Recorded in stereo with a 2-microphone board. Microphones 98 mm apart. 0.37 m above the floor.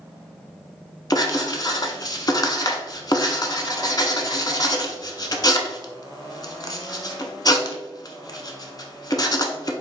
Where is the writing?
40° left (ahead or behind), 0.5 m.